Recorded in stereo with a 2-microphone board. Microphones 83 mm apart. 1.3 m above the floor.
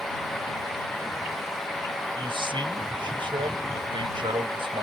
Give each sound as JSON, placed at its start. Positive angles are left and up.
{"t": 2.1, "sound": "a man speaking", "side_deg": -85}